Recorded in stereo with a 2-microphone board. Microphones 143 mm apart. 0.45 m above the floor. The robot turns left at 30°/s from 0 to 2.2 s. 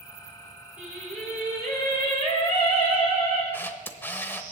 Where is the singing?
170° right, 5.5 m; by 3.4 s 145° left, 5.5 m.